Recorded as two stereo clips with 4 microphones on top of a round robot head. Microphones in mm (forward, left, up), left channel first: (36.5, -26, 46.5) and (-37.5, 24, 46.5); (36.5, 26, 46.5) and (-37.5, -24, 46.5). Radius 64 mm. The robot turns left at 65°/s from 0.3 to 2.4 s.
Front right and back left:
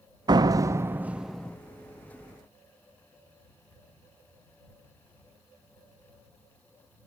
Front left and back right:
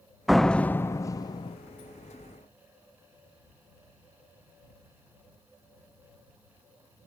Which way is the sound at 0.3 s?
125° left.